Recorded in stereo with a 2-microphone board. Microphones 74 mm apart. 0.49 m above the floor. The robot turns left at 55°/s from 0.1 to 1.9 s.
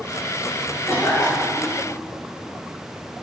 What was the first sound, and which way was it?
A cough, 145° left.